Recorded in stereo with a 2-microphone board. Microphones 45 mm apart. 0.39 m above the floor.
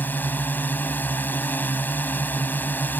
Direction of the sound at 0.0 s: 45° left (ahead or behind).